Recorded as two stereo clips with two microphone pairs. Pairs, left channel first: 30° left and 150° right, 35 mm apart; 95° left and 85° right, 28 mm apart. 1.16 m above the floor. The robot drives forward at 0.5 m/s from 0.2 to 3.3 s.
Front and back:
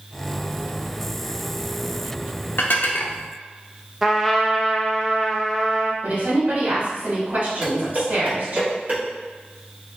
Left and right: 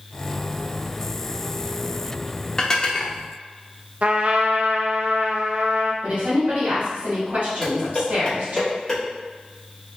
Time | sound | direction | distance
2.6 | dishes clattering | 30° left | 0.8 m
4.0 | a trumpet | 65° right | 0.6 m
6.0 | a woman speaking | 110° right | 1.9 m
7.6 | dishes clattering | 170° left | 1.9 m